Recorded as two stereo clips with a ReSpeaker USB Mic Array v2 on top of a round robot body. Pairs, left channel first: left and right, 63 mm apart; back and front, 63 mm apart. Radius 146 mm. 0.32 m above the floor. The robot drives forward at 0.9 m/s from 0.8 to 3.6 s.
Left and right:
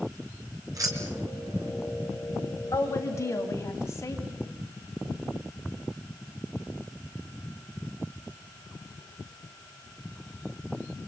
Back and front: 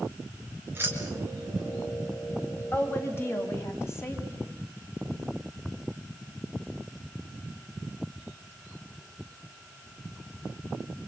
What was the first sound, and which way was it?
Keys jangling, 55° right.